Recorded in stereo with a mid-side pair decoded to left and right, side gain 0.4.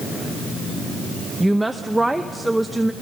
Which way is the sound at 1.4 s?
10° right.